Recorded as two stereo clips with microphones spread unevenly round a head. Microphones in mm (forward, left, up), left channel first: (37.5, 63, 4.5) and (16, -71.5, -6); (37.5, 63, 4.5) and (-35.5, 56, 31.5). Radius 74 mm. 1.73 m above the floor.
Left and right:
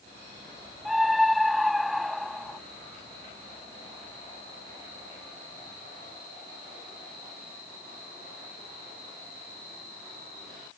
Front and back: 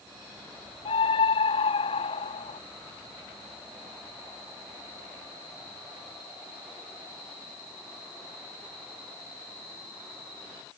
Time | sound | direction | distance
0.8 | a scream | 10° right | ?